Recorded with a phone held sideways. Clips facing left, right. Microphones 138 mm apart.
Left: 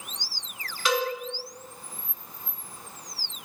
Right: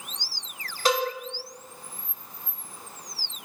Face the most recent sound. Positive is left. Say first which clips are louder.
# right 2 dB
turn(degrees=-40)  # may be behind; listen again after turning